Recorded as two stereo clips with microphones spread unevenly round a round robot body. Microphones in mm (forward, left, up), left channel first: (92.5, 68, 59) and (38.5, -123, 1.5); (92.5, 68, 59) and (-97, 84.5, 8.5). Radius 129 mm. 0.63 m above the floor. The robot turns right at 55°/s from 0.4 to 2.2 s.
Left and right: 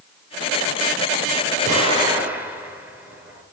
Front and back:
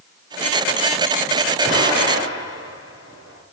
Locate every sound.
1.7 s an explosion: 55° right, 7.5 m; by 3.4 s 25° right, 7.5 m